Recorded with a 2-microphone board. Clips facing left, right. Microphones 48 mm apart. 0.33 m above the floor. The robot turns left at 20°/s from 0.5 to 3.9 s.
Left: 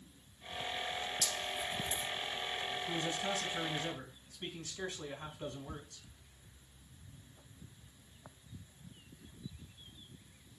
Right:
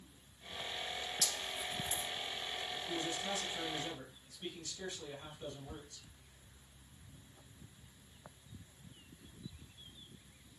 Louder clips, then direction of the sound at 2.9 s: Left 2 dB; 60° left (ahead or behind).